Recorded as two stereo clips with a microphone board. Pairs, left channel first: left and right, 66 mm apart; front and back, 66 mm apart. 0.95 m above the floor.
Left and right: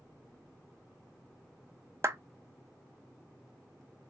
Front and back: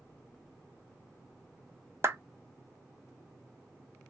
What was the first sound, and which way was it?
A clap, 130° right.